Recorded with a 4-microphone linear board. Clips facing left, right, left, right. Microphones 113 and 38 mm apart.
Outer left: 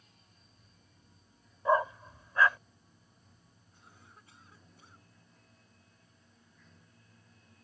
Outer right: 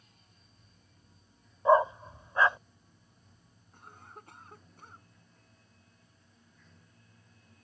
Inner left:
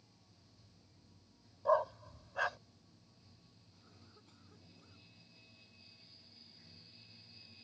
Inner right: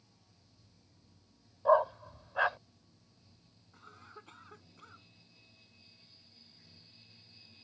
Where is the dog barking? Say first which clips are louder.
Outer right 5 dB, inner right 6 dB; 25° right (ahead or behind).